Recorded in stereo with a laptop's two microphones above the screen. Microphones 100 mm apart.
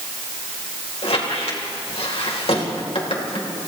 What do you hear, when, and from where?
1.0 s a squeak: 80° left, 3 m